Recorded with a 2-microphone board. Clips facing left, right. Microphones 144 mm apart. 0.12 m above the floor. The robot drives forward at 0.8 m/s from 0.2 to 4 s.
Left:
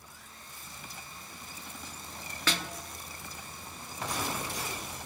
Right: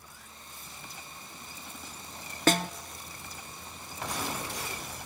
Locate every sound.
2.5 s a snare drum: 45° right (ahead or behind), 0.8 m